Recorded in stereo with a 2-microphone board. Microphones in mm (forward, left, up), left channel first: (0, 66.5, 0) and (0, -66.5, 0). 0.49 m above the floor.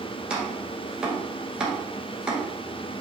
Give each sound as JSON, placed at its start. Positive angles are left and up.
{"t": 0.3, "sound": "chopping", "side_deg": -5, "distance_m": 1.7}